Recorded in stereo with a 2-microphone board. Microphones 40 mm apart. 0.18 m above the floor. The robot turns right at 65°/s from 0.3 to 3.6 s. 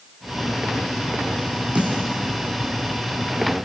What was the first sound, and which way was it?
A snare drum, 35° right (ahead or behind).